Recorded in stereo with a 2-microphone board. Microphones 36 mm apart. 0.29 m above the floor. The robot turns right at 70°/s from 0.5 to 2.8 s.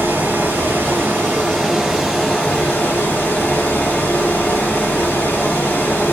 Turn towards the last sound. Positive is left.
turn(degrees=55)